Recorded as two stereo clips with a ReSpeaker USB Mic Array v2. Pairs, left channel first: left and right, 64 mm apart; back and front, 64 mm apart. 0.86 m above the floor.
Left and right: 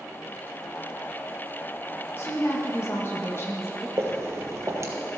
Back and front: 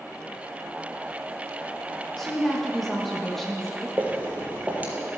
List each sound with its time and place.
2.2 s a woman speaking: 95° left, 1.1 m
4.0 s footsteps: 60° right, 1.3 m